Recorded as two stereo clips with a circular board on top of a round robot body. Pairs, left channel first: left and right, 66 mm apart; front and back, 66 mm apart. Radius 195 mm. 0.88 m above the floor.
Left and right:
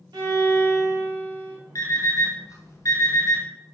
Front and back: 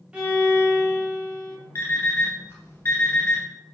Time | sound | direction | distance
0.1 | a violin | 105° right | 1.5 m
1.8 | an alarm clock | 50° left | 0.8 m